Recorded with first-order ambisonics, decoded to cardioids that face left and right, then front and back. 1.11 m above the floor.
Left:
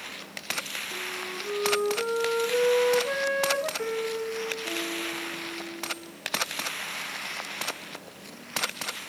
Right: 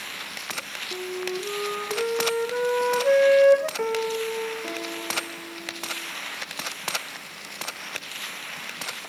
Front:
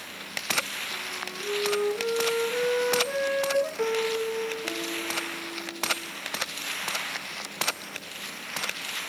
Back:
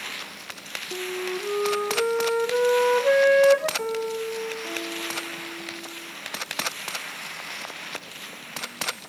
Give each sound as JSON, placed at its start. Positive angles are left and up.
{"t": 0.9, "sound": "a flute", "azimuth_deg": -150, "distance_m": 1.1}
{"t": 3.8, "sound": "a piano", "azimuth_deg": -90, "distance_m": 1.3}